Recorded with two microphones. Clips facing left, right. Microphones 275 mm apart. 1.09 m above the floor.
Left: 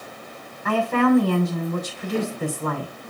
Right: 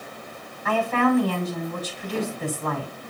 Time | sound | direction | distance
0.7 | a woman speaking | 50° left (ahead or behind) | 6 m